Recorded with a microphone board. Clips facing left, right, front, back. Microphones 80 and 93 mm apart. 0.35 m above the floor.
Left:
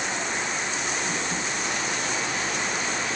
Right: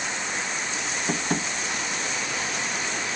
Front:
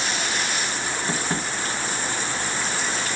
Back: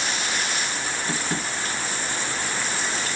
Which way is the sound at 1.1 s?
55° right.